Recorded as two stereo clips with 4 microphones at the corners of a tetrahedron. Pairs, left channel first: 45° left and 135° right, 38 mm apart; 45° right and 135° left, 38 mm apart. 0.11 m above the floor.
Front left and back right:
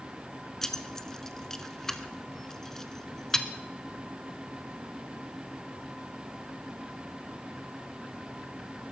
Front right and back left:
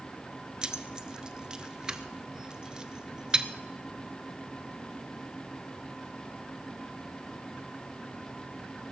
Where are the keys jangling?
105° left, 0.8 m.